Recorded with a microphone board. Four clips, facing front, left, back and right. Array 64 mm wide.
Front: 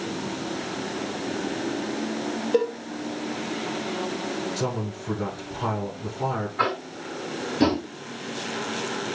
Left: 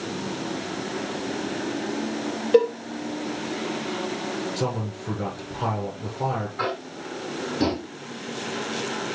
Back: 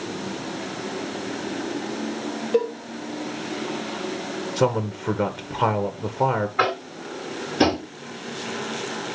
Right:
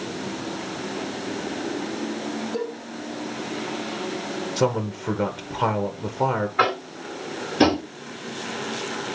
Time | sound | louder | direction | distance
2.5 | a cowbell | left 15 dB, back 1 dB | 95° left | 3 m
4.6 | a man speaking | right 5 dB, back 6 dB | 150° right | 1.6 m
6.6 | tapping | right 6 dB, back 2 dB | 125° right | 2 m